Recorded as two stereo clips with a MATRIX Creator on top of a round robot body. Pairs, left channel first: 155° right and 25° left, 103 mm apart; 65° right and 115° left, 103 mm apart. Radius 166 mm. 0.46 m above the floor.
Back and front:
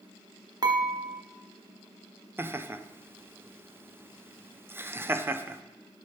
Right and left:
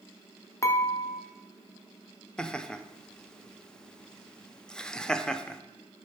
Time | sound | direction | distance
0.6 | dishes clattering | 15° right | 1.1 m
2.4 | laughter | 5° left | 0.8 m